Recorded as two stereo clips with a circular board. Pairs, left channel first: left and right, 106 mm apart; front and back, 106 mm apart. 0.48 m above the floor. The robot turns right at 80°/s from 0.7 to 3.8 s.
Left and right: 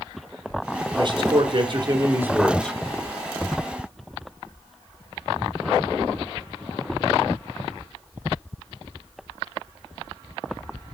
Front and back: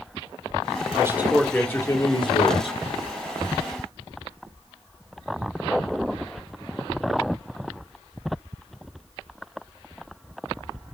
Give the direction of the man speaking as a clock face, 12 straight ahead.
4 o'clock.